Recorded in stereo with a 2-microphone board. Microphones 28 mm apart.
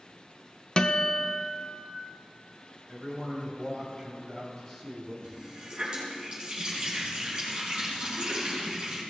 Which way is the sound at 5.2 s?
30° right (ahead or behind).